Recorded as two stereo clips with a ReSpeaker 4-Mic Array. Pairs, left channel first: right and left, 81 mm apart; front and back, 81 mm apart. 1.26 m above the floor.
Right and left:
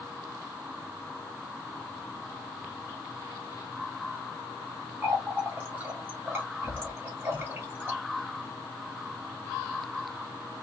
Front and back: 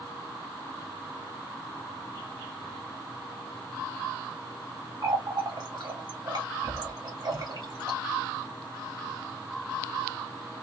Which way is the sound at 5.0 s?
155° left.